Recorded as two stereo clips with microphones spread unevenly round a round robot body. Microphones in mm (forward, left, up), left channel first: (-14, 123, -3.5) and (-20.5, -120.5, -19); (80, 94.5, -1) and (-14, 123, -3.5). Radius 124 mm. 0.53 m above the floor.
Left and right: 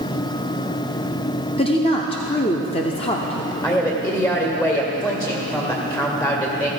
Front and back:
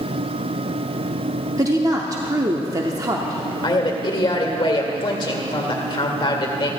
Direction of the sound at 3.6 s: 10° left.